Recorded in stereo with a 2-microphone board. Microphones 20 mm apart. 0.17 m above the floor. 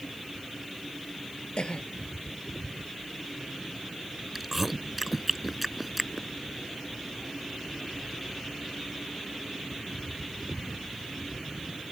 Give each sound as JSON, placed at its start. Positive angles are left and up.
{"t": 1.6, "sound": "a cough", "side_deg": 55}
{"t": 4.3, "sound": "chewing", "side_deg": -5}